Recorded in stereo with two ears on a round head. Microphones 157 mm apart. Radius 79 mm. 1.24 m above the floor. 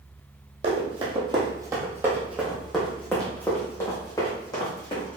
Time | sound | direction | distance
0.6 | running footsteps | 40° right (ahead or behind) | 1.9 m